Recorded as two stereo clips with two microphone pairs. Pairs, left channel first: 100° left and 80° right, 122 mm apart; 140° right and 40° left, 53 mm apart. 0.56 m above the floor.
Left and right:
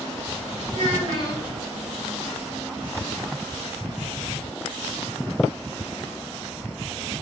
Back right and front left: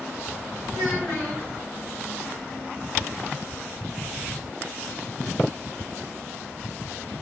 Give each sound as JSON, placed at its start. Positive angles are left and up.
{"t": 0.7, "sound": "a child speaking", "azimuth_deg": -125, "distance_m": 1.6}